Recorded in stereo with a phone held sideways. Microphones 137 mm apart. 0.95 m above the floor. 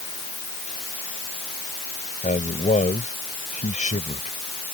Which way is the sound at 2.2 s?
65° left (ahead or behind).